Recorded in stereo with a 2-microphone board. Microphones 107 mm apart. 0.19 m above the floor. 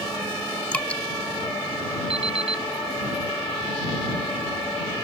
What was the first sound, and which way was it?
Dripping, 10° left (ahead or behind).